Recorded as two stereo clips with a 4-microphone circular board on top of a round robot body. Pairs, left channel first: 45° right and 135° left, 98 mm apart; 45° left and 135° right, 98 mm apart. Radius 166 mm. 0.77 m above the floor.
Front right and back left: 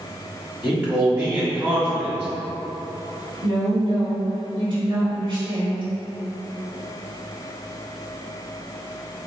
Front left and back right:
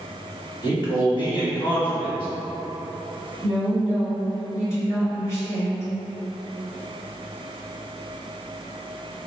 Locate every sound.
0.6 s a man speaking: 65° left, 1.8 m
3.4 s a woman speaking: 100° left, 1.7 m